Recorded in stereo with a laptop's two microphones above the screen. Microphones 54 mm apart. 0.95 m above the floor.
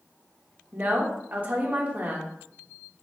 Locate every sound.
0.7 s a woman speaking: 30° right (ahead or behind), 1.1 m